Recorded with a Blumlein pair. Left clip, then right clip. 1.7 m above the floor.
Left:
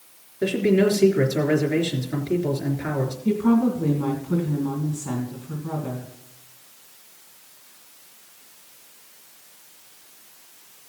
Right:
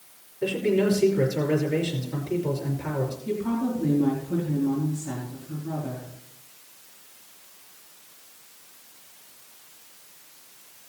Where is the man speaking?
65° left, 3.5 m.